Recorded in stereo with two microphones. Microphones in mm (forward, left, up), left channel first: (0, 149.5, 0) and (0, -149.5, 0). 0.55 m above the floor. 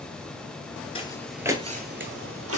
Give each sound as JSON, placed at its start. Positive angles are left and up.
{"t": 0.9, "sound": "footsteps", "side_deg": 20, "distance_m": 0.6}